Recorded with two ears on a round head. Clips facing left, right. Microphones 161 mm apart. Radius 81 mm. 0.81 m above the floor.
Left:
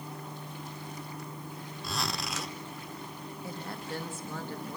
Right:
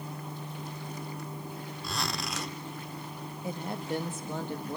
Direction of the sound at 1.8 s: Centre (ahead or behind).